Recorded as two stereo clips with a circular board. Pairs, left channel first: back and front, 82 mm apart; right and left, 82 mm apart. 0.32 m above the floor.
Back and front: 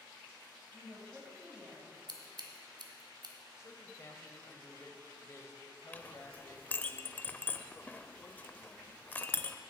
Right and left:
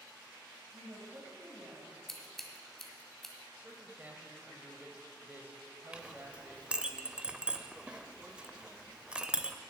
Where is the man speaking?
145° left, 1.3 m.